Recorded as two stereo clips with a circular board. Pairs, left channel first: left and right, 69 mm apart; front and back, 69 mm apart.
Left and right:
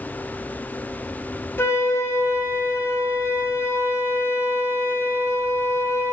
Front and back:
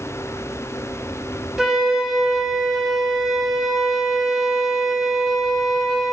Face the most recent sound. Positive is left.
turn(degrees=100)